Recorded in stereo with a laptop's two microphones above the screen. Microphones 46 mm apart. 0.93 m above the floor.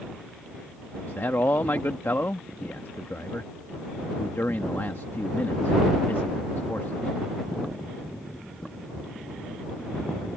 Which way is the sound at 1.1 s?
55° left (ahead or behind).